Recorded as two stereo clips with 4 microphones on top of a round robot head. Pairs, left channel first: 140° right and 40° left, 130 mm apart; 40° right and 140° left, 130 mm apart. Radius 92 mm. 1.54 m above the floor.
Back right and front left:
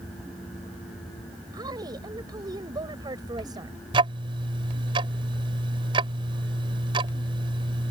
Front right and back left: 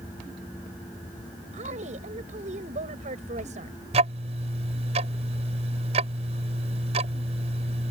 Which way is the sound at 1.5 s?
100° left.